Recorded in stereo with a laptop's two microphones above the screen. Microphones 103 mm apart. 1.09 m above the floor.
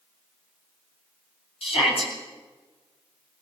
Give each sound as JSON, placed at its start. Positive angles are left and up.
{"t": 1.6, "sound": "a shout", "side_deg": 75, "distance_m": 8.0}